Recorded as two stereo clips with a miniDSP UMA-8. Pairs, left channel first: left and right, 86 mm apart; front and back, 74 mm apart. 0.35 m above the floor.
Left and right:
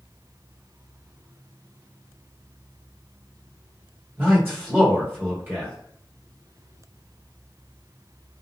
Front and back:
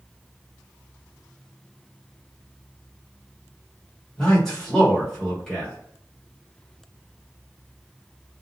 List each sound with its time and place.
4.2 s a man speaking: 80° right, 1.4 m